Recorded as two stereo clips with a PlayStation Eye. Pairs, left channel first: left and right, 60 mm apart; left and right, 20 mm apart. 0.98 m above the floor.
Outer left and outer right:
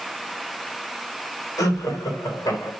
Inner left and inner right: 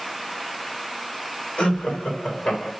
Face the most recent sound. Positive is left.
turn(degrees=85)